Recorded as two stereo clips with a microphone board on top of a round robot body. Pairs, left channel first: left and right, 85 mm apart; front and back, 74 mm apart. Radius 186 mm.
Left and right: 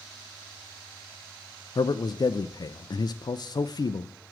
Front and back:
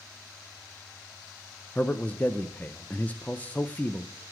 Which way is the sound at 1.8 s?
65° left.